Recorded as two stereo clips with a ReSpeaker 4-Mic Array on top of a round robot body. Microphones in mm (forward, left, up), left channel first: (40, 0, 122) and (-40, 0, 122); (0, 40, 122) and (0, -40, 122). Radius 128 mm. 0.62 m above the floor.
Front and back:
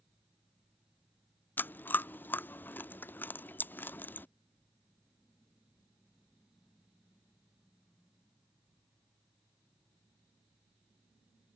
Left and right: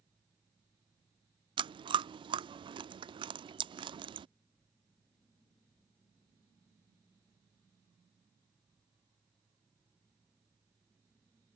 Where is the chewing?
70° right.